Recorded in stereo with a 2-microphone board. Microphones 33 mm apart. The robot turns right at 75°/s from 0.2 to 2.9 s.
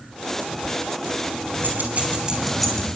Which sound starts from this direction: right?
Keys jangling, at 1.6 s.